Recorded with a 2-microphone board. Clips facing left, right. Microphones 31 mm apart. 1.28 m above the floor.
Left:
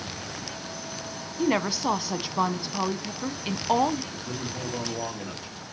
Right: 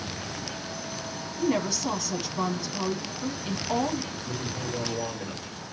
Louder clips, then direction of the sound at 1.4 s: Left 2 dB; 40° left (ahead or behind).